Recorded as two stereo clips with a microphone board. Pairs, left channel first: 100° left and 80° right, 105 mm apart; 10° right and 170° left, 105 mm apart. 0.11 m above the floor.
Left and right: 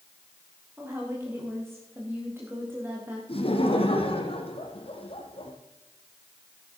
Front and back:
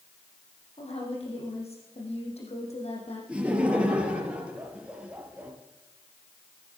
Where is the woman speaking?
10° right, 6.5 m.